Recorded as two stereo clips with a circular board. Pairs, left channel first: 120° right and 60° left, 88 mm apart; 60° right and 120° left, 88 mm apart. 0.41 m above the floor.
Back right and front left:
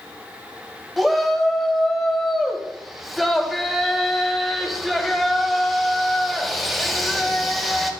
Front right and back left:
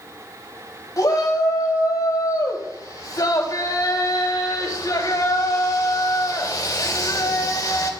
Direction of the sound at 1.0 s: 30° right.